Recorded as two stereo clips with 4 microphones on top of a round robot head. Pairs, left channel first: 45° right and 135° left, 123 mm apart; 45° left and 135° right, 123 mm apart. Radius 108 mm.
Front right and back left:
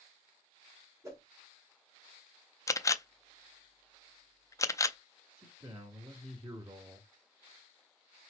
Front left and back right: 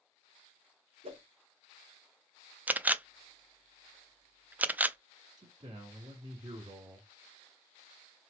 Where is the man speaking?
175° right, 1.5 m.